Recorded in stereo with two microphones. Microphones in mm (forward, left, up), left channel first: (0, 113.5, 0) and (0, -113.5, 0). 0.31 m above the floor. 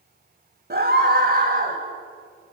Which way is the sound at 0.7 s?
45° right (ahead or behind).